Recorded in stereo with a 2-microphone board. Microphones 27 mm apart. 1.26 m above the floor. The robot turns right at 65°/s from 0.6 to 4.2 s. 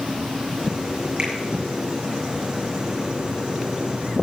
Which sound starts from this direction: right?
A finger snap, at 1.2 s.